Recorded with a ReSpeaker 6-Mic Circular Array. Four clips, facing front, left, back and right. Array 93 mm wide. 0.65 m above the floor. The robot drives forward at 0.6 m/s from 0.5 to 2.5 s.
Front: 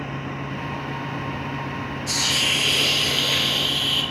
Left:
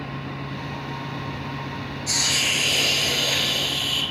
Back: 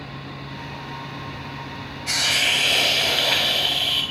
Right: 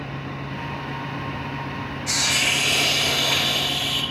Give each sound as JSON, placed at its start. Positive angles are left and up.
{"t": 2.1, "sound": "a hiss", "azimuth_deg": -160, "distance_m": 2.0}